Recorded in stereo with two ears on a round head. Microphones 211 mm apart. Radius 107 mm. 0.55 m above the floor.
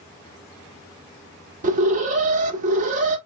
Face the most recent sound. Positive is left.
turn(degrees=-35)  # may be behind; listen again after turning